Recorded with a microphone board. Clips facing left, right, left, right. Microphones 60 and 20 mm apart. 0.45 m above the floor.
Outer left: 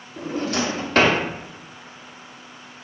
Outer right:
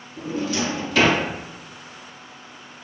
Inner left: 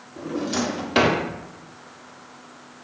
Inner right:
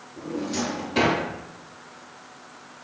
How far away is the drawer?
About 0.5 m.